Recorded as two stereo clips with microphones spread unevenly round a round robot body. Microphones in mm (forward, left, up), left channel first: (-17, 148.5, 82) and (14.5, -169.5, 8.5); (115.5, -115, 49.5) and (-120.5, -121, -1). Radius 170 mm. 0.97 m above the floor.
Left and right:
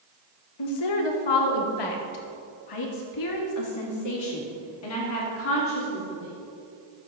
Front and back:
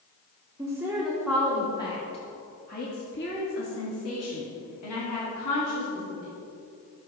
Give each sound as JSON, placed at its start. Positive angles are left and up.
{"t": 0.6, "sound": "a woman speaking", "azimuth_deg": 105, "distance_m": 1.8}